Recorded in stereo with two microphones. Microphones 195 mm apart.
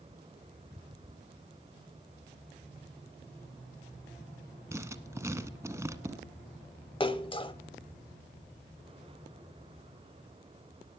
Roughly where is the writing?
Centre.